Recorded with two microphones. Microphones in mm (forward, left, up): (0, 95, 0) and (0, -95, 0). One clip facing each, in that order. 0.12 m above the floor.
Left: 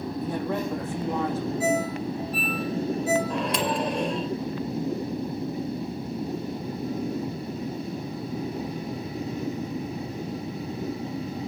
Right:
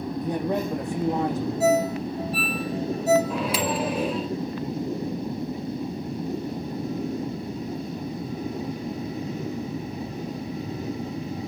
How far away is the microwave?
About 1.8 m.